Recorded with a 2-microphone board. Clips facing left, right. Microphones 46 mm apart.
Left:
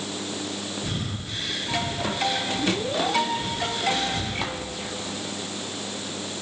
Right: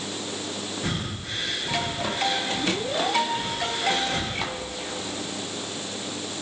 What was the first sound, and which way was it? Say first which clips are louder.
Breathing: right 1 dB; 85° right.